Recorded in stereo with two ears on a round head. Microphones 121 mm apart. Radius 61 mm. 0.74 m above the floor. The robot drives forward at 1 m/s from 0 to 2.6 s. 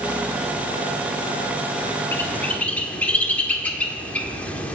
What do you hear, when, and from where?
2.1 s a bird: 15° left (ahead or behind), 1.0 m; by 4.8 s 10° left (ahead or behind), 1.5 m